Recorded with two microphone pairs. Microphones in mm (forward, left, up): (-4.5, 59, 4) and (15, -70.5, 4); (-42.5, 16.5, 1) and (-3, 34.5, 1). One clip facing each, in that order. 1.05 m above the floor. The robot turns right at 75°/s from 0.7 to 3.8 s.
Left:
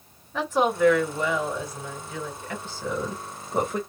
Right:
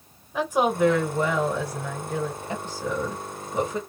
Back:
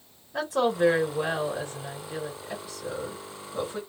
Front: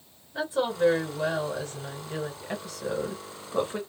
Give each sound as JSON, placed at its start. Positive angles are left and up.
{"t": 0.3, "sound": "a woman speaking", "azimuth_deg": -160, "distance_m": 1.4}